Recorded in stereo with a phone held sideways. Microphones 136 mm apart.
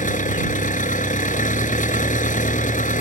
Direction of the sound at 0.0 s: 75° left (ahead or behind).